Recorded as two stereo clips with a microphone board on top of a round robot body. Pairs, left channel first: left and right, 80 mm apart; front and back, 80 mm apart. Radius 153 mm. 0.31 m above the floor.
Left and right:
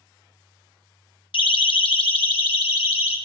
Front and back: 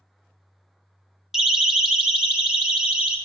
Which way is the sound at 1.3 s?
95° left.